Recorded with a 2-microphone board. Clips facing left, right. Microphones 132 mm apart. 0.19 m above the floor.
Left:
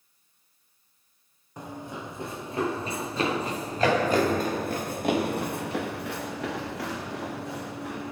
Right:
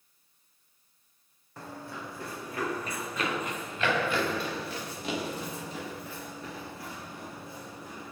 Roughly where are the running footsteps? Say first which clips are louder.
Left 4 dB; centre.